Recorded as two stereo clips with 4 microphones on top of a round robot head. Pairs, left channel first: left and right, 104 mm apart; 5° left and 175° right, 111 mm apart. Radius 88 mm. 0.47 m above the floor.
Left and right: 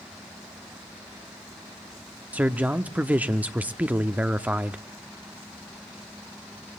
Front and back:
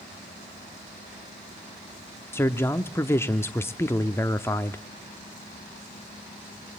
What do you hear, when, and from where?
2.3 s a man speaking: 35° right, 0.7 m